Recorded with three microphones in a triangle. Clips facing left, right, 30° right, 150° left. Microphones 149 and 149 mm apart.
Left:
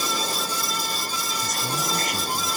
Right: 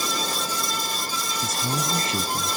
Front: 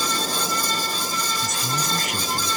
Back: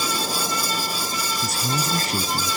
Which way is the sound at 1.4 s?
155° right.